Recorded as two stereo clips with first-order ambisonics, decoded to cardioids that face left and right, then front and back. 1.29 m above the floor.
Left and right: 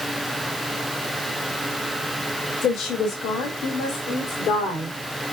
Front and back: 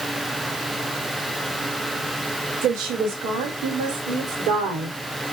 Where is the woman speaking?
140° left, 3.5 m; by 5.0 s 145° left, 4.5 m.